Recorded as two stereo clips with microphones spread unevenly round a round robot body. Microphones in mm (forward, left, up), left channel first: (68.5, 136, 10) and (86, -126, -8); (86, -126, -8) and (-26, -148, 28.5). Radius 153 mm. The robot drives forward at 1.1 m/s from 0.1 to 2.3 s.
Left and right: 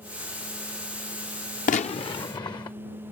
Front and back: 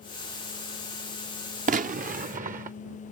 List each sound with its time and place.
1.7 s a gunshot: 160° left; by 2.8 s 170° left